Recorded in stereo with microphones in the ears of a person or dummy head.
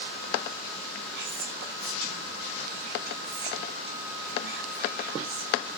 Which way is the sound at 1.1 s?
60° right (ahead or behind).